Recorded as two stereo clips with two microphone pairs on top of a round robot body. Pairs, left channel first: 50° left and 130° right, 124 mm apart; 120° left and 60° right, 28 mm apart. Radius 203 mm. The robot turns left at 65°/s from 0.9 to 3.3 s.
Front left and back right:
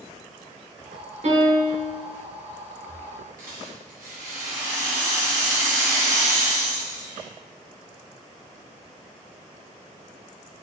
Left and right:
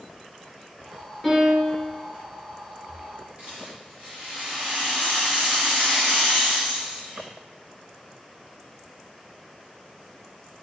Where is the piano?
160° right, 1.7 m; by 1.9 s 155° left, 1.7 m.